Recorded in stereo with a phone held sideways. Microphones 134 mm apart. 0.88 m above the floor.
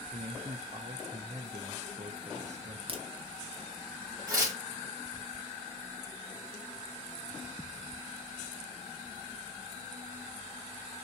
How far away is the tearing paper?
About 2 m.